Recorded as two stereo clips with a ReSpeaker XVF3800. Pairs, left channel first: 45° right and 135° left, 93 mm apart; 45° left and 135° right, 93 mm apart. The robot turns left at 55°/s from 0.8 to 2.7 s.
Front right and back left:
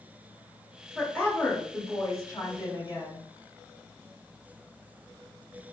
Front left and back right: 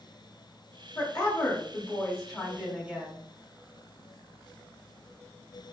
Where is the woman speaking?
35° left, 1.2 m; by 3.3 s 60° right, 1.2 m.